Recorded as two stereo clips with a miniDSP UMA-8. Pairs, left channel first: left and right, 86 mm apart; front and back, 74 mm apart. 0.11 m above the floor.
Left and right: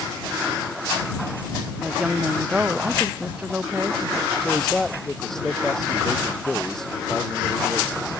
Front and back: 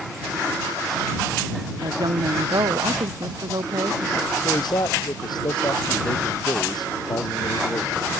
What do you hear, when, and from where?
1.8 s a woman speaking: 170° right; by 4.3 s 160° right
4.4 s a man speaking: 5° left